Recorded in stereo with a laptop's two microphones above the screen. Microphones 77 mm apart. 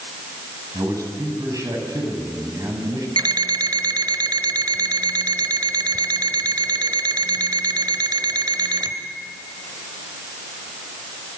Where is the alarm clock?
70° right (ahead or behind), 1.5 m.